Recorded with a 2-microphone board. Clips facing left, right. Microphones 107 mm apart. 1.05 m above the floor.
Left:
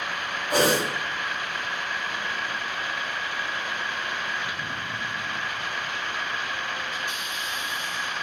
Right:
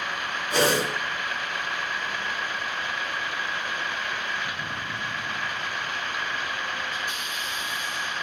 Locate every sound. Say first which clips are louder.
0.5 s a whoosh: left 1 dB; 55° left (ahead or behind), 4 m